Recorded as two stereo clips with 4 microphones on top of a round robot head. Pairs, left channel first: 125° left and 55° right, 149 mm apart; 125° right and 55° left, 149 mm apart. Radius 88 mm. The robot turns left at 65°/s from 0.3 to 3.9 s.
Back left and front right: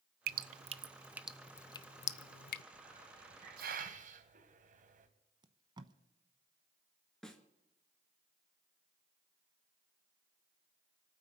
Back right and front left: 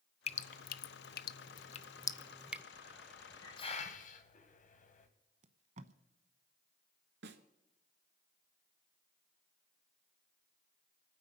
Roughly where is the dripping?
Right.